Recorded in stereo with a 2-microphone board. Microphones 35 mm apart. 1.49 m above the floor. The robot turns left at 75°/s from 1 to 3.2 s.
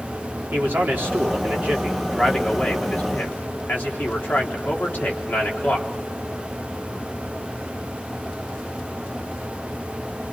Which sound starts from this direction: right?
A man speaking, at 0.5 s.